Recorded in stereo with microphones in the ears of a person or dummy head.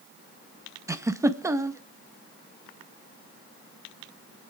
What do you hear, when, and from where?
0.9 s a giggle: 15° right (ahead or behind), 0.7 m